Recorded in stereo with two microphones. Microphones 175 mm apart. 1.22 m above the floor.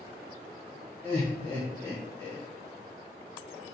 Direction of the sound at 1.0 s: 15° left (ahead or behind).